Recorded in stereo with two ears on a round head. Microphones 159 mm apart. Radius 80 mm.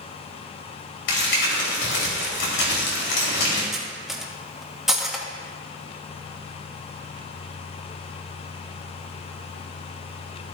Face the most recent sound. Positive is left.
turn(degrees=-5)  # may be behind; listen again after turning